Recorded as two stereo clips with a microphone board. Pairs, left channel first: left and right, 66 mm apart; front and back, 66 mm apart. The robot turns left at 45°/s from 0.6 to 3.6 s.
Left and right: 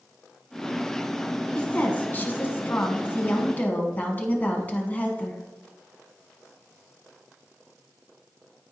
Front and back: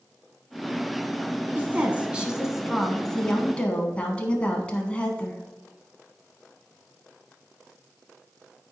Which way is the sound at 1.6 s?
145° left.